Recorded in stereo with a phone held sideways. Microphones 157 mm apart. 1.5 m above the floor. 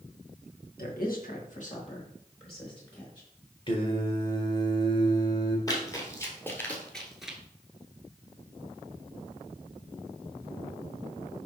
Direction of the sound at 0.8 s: 70° left (ahead or behind).